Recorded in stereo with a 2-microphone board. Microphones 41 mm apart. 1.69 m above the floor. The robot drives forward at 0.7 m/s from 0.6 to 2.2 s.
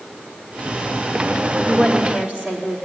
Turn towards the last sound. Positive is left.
turn(degrees=-30)  # may be behind; listen again after turning